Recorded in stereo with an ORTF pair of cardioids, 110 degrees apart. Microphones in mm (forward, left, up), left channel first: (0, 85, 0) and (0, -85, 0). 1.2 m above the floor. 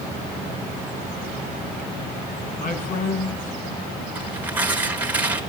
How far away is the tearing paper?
About 5 m.